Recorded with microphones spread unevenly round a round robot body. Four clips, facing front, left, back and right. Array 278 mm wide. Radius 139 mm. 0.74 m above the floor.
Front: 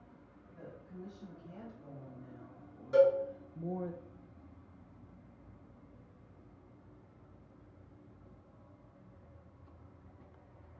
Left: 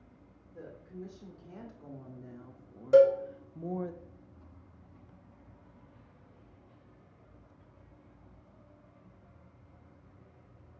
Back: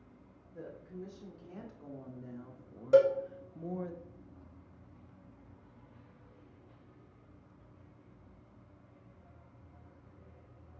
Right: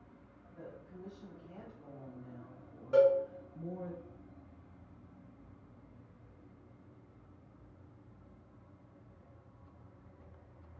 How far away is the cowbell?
About 1.4 m.